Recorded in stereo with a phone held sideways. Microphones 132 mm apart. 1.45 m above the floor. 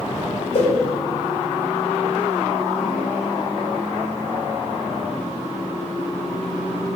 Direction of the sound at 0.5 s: 60° left (ahead or behind).